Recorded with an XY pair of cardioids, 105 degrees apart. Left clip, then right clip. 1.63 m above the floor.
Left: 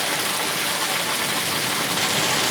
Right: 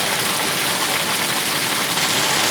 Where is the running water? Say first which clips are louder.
Right 3 dB; 25° right, 0.9 m.